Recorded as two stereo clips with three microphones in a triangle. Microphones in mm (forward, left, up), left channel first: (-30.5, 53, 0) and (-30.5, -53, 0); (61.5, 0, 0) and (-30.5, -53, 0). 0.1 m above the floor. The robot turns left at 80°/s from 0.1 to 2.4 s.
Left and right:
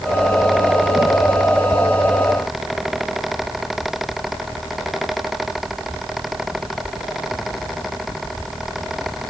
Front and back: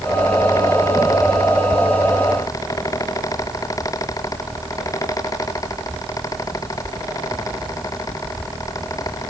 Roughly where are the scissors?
I don't hear scissors.